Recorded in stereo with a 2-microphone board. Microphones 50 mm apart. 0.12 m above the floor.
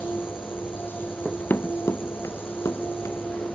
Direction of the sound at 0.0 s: 45° left (ahead or behind).